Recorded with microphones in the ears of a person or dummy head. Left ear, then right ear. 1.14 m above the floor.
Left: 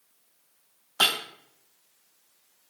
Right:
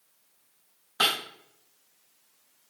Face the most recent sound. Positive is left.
turn(degrees=60)  # may be behind; listen again after turning